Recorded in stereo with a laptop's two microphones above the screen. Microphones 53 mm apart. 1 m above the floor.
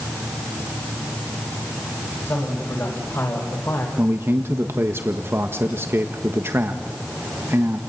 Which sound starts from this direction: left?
A man speaking, at 2.3 s.